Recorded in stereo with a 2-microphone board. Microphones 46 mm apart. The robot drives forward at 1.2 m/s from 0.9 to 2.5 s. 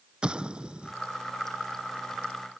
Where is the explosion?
20° right (ahead or behind).